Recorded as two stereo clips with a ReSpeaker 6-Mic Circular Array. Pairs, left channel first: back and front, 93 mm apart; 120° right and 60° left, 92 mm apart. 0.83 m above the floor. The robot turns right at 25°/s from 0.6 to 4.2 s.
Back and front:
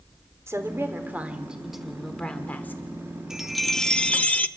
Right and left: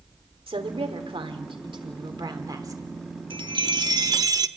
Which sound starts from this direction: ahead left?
A woman speaking, at 0.5 s.